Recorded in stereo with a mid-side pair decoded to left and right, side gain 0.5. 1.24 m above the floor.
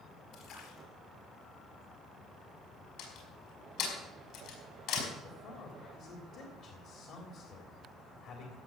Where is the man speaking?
65° left, 3 m.